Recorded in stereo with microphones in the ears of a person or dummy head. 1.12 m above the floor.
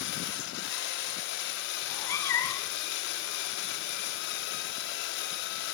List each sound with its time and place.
0.0 s a machine running: 65° left (ahead or behind), 3 m
1.8 s a cat meowing: 20° left (ahead or behind), 2 m